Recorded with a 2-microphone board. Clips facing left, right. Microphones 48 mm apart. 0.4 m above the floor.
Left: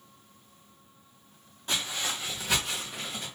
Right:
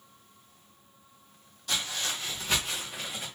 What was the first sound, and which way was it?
Footsteps, 25° left (ahead or behind).